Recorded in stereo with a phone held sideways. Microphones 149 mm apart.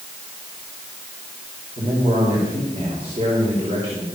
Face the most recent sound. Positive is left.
turn(degrees=-40)  # may be behind; listen again after turning